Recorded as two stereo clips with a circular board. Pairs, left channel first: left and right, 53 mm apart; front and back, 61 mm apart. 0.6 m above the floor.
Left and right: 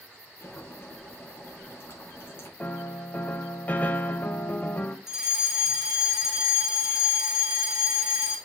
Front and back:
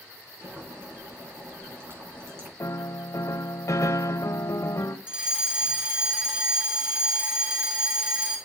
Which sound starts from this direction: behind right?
A fire alarm, at 5.1 s.